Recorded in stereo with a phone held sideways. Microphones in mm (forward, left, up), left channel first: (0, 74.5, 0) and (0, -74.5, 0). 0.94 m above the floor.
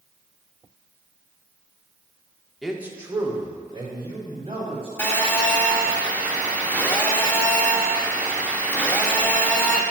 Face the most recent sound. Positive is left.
turn(degrees=10)  # may be behind; listen again after turning